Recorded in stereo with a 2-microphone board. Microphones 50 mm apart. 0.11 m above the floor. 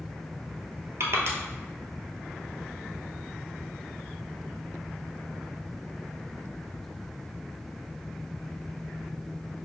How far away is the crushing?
About 0.9 m.